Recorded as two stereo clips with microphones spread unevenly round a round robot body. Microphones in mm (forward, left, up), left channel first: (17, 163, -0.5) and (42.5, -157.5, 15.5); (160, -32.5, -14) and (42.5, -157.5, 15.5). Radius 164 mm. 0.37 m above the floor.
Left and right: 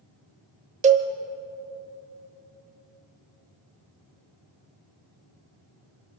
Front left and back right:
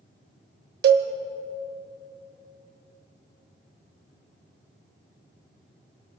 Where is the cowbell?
155° right, 0.9 m.